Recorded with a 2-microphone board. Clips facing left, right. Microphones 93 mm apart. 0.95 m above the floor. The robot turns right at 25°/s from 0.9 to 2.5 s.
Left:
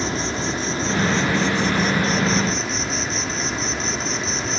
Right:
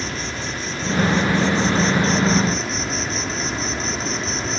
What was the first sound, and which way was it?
An insect, 145° left.